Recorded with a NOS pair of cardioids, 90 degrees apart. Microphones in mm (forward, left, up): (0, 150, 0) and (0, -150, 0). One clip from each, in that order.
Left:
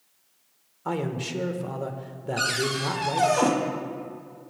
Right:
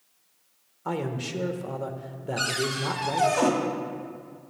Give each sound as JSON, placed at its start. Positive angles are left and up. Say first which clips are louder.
{"t": 0.8, "sound": "a man speaking", "louder": "left 1 dB", "azimuth_deg": 5, "distance_m": 1.3}
{"t": 2.4, "sound": "a cupboard door", "louder": "left 2 dB", "azimuth_deg": 5, "distance_m": 2.0}